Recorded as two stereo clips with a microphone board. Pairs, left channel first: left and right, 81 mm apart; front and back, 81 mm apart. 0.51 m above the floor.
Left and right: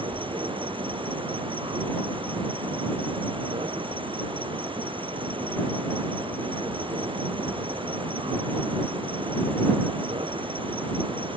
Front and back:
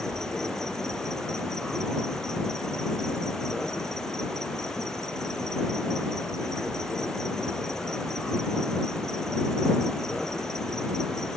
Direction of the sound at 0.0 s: 85° right.